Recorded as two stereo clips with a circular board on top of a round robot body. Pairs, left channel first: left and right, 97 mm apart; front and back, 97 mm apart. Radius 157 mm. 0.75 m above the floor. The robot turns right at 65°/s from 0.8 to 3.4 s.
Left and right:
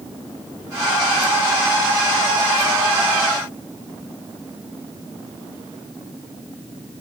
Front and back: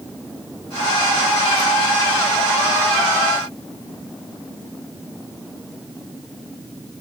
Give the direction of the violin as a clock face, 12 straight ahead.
No violin in this recording.